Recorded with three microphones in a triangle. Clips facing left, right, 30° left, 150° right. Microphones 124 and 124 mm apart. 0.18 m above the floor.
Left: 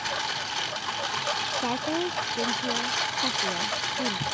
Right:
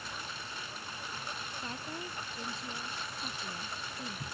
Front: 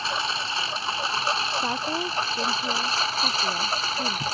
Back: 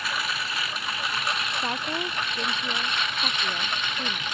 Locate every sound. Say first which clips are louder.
0.0 s a lawn mower: left 12 dB, front 2 dB; 90° left; by 4.3 s 85° left
1.6 s a woman speaking: left 16 dB, front 2 dB; 115° left